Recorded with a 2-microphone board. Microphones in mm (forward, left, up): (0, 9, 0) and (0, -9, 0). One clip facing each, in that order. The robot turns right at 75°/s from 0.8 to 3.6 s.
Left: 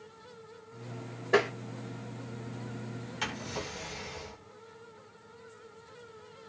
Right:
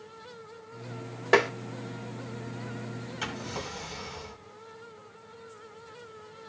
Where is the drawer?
15° left (ahead or behind), 1.8 m; by 4.4 s 15° right (ahead or behind), 1.8 m.